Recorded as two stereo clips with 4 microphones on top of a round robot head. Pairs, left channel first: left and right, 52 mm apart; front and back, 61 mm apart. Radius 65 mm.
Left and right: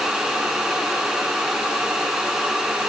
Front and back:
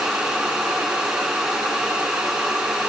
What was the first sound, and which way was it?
Only background noise.